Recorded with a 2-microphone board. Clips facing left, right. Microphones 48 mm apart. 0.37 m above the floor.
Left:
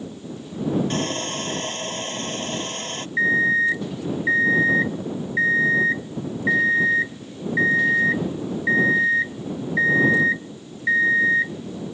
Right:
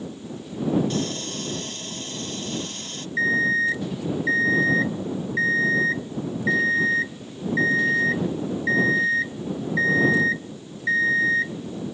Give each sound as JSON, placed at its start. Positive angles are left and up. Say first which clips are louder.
{"t": 0.9, "sound": "sawing", "louder": "left 2 dB", "side_deg": 40}
{"t": 3.2, "sound": "an alarm clock", "louder": "left 2 dB", "side_deg": 15}